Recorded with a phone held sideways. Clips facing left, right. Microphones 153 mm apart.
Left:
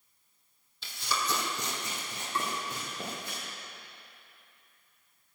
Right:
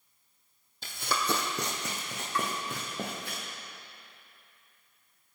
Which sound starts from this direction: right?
Running footsteps, at 0.8 s.